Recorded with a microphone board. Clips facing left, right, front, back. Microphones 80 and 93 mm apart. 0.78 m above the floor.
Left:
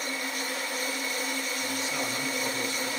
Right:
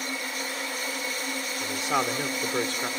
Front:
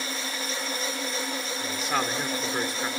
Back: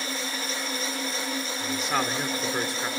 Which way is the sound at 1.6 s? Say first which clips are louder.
Right 5 dB, back 1 dB; 90° right.